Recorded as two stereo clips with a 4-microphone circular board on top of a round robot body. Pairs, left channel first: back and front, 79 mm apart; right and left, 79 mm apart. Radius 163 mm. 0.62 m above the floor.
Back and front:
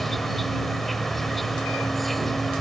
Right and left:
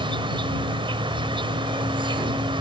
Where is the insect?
90° left.